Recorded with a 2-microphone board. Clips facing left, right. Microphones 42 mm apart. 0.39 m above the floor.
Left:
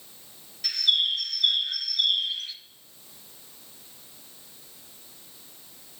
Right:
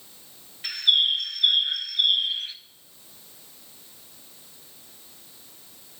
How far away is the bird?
About 0.6 m.